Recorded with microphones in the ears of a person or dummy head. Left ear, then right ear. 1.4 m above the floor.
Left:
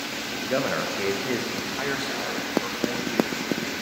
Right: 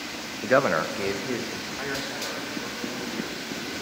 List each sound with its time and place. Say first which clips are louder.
0.4 s a man speaking: right 5 dB; 55° right (ahead or behind), 0.5 m; by 3.7 s 30° left (ahead or behind), 3 m